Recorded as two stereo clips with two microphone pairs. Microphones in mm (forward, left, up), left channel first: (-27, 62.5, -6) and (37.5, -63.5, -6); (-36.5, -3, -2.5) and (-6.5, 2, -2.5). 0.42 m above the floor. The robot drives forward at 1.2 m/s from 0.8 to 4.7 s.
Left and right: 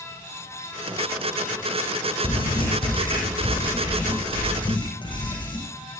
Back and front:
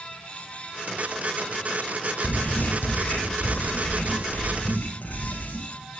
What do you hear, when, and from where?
2.2 s writing: 170° left, 9 m